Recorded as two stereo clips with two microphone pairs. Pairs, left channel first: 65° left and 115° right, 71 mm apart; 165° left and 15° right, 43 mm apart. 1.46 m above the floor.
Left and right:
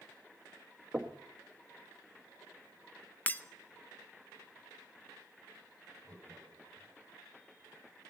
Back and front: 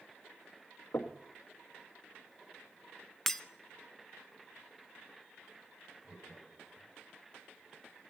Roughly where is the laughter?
Right.